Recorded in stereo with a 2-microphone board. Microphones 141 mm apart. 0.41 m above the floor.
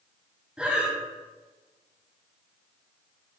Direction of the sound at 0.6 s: 5° right (ahead or behind).